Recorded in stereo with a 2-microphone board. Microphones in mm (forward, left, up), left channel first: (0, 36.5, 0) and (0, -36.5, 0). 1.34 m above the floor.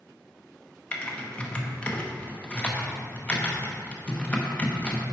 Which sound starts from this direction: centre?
Typing on a keyboard, at 0.9 s.